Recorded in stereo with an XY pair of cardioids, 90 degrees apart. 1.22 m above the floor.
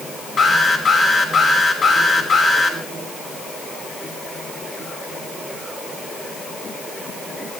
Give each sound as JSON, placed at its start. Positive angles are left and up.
{"t": 0.4, "sound": "an alarm", "azimuth_deg": 55, "distance_m": 6.0}